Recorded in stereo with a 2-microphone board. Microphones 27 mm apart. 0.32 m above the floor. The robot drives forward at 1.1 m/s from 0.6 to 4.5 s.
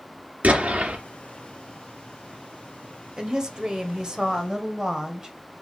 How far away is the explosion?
About 3 m.